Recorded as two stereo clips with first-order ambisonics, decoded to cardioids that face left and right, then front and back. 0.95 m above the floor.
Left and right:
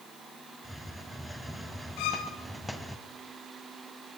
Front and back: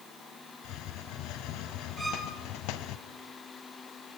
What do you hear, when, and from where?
0.6 s a hiss: straight ahead, 1.5 m
2.0 s a violin: 95° left, 3.5 m